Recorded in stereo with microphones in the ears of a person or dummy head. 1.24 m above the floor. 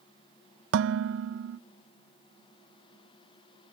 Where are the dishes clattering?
65° right (ahead or behind), 0.8 m.